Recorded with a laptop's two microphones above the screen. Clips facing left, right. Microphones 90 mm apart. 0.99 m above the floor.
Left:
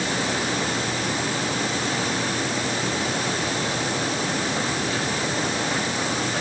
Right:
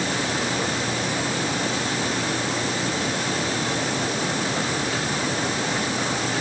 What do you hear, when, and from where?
Only background noise.